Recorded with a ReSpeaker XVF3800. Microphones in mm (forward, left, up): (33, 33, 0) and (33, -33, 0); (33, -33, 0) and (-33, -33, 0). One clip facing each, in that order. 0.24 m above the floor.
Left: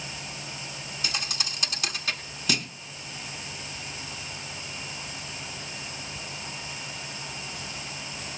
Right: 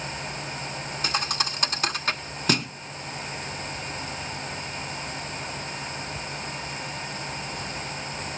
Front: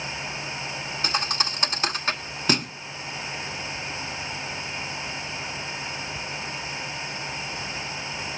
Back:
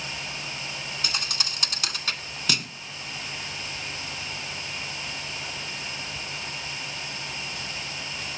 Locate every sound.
1.0 s a thud: 55° right, 1.0 m